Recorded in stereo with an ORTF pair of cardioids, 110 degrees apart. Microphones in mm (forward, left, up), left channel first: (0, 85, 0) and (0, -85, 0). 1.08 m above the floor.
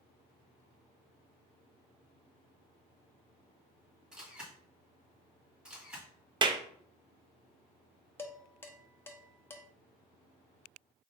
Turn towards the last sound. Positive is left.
turn(degrees=15)